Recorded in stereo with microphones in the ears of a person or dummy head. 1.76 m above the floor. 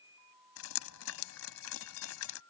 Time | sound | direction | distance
0.6 | dripping | 85° left | ?